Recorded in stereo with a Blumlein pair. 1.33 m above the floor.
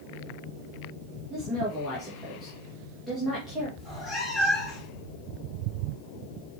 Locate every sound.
1.3 s a woman speaking: 5° left, 1.6 m
3.8 s a cat meowing: 15° left, 2 m